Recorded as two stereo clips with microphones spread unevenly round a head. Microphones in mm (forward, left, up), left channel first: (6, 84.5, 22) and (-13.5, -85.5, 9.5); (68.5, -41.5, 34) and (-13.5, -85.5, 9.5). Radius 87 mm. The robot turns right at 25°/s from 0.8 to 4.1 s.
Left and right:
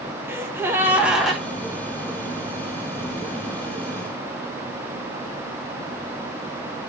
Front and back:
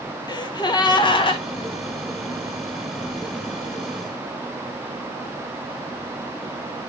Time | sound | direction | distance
0.3 | a gasp | 20° right | 0.7 m